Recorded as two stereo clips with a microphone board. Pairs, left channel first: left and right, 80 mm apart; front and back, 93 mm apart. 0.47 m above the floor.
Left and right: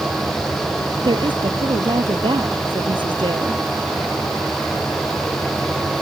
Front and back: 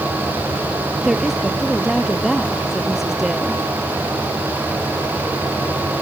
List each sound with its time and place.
1.0 s a woman speaking: 95° right